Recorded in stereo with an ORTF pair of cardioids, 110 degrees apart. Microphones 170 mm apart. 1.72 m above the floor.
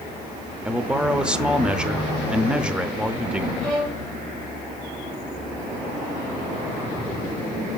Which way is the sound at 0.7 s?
5° right.